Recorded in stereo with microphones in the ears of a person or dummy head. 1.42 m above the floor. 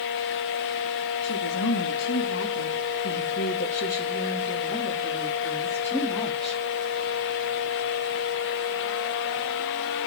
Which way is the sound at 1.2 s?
80° left.